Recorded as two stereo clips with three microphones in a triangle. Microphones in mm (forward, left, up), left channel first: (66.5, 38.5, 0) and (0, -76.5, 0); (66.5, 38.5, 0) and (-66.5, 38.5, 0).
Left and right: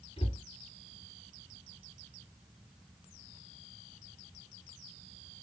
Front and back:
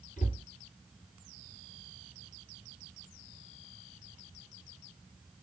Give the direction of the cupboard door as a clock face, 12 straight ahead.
12 o'clock.